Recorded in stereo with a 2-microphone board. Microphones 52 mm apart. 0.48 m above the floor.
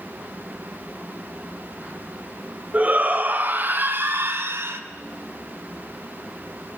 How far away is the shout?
About 1.8 m.